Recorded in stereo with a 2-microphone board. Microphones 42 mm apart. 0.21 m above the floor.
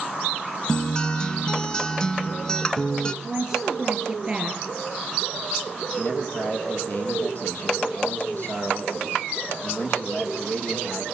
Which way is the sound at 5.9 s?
40° left (ahead or behind).